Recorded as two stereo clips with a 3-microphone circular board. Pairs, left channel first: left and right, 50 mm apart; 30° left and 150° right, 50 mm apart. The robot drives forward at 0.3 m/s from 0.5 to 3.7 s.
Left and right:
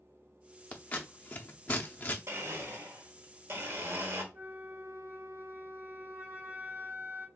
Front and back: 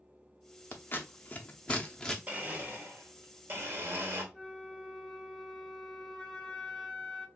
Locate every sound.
0.7 s scissors: 45° left, 0.7 m; by 2.2 s 100° left, 0.6 m
2.3 s a blender: 90° right, 0.9 m; by 4.2 s 120° right, 1.0 m
4.3 s a flute: 60° right, 1.0 m